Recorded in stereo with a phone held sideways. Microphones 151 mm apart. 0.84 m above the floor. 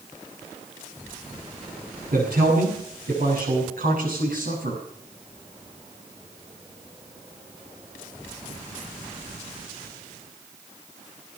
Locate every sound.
2.1 s a man speaking: 85° right, 8 m; by 4.8 s 75° right (ahead or behind), 7 m